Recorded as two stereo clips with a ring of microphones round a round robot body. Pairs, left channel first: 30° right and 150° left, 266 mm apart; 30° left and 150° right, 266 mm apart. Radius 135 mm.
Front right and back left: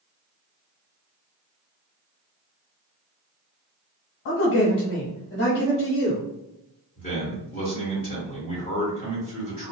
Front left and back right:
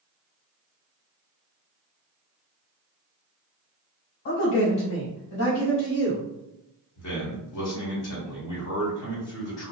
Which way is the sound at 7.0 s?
25° left.